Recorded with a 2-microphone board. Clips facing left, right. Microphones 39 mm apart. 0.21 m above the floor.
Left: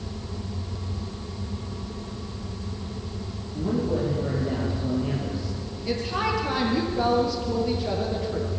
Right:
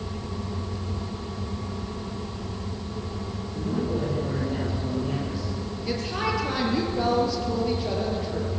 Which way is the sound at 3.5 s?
25° left (ahead or behind).